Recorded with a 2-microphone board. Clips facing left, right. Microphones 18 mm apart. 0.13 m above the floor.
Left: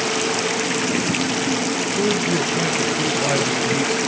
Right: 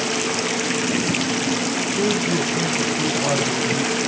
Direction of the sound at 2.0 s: 25° left (ahead or behind).